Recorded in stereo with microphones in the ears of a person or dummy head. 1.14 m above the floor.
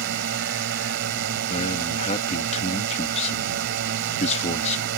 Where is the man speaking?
35° left (ahead or behind).